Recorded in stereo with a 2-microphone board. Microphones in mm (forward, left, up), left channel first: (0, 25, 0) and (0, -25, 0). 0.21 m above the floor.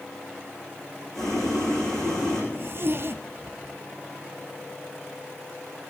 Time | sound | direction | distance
1.1 | boiling | 10° left (ahead or behind) | 6 m
2.5 | a zipper | 60° right (ahead or behind) | 0.9 m